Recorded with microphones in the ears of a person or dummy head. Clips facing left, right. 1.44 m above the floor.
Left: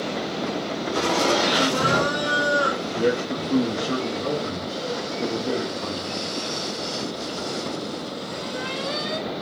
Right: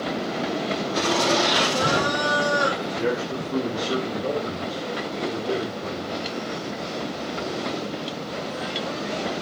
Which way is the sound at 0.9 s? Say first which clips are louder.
Left 1 dB; 75° left (ahead or behind).